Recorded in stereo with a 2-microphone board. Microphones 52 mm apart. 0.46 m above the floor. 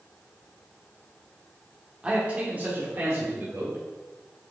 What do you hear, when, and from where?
2.0 s a man speaking: 20° right (ahead or behind), 1.1 m; by 3.8 s 55° right (ahead or behind), 1.7 m